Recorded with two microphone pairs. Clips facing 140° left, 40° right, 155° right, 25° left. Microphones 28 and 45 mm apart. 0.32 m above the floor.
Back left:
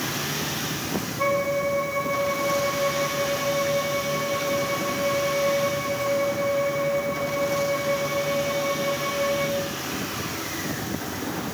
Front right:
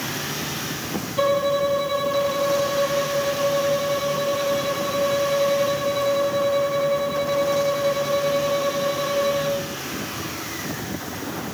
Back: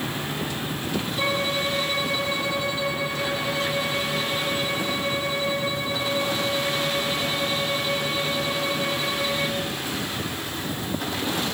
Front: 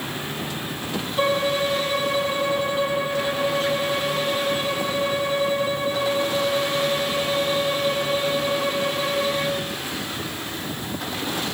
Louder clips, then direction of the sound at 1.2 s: Front right 4 dB, front 5 dB; 35° right.